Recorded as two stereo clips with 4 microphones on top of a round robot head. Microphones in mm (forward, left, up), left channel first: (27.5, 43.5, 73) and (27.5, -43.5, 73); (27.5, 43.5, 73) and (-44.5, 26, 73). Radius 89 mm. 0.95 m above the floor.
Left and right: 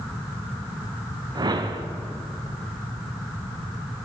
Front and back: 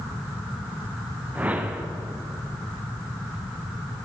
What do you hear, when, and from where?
1.4 s a whoosh: 100° right, 0.7 m